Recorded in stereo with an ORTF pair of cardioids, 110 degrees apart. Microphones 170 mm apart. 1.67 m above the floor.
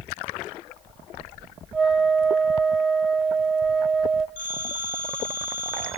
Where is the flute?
5° right, 0.7 m.